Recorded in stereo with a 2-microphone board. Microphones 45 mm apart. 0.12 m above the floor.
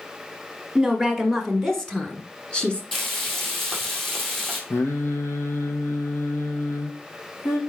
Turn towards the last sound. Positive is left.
turn(degrees=75)  # may be behind; listen again after turning